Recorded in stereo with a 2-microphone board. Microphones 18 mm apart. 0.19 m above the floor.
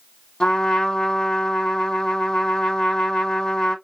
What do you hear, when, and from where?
0.4 s a trumpet: 40° left (ahead or behind), 2.5 m